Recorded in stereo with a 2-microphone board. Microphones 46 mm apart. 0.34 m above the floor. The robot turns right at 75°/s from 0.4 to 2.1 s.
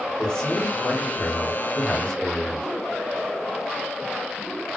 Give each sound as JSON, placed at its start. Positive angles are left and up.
{"t": 0.2, "sound": "a man speaking", "azimuth_deg": 30, "distance_m": 1.1}